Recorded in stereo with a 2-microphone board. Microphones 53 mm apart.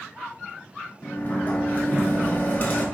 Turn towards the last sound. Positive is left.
turn(degrees=40)  # may be behind; listen again after turning